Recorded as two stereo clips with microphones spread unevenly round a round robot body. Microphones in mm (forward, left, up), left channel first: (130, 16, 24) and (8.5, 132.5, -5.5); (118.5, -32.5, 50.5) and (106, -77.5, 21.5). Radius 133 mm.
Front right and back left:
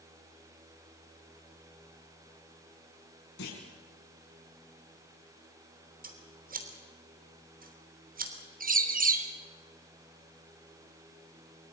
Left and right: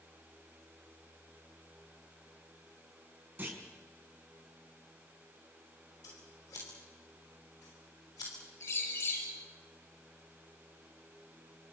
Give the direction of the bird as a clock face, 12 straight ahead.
9 o'clock.